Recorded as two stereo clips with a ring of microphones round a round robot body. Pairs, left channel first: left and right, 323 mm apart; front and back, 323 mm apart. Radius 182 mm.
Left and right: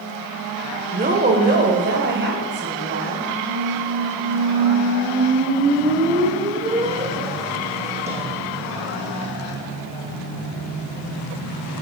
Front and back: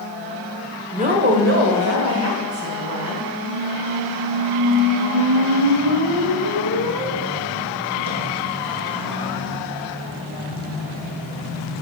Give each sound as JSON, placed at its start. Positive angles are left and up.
{"t": 0.9, "sound": "a woman speaking", "azimuth_deg": -130, "distance_m": 1.2}
{"t": 3.4, "sound": "a squeak", "azimuth_deg": -160, "distance_m": 1.6}